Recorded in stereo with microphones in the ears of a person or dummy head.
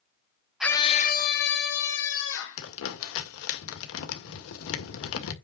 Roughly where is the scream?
Centre.